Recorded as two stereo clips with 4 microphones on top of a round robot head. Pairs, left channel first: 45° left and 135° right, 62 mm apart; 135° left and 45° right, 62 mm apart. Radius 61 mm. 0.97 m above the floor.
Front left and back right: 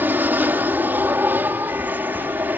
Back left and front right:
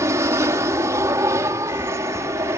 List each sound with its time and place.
0.0 s an aircraft: 75° right